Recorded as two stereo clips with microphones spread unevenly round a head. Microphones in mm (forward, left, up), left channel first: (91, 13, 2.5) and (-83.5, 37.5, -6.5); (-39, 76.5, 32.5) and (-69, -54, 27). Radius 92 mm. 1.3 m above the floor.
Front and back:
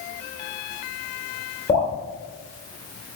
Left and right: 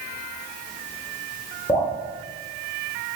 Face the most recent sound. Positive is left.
turn(degrees=20)